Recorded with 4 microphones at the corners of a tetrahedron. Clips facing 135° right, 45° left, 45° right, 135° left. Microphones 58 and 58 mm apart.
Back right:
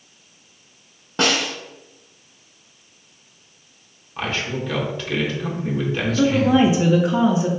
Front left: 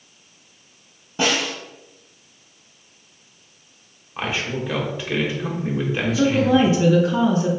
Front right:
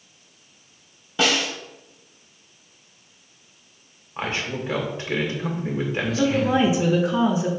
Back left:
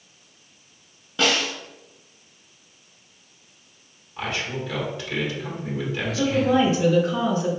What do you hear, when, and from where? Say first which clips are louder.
1.2 s a snare drum: back right 1 dB, front right 1 dB; 125° right, 1.4 m
4.2 s a man speaking: even, front right 1 dB; 20° right, 1.2 m
6.2 s a woman speaking: back right 1 dB, even; 95° right, 0.7 m